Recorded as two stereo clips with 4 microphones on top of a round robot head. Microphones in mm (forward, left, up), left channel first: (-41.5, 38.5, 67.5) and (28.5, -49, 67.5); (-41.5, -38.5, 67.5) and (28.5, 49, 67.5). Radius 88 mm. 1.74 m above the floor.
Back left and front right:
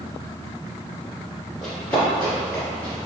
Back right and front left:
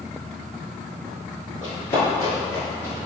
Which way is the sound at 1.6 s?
150° right.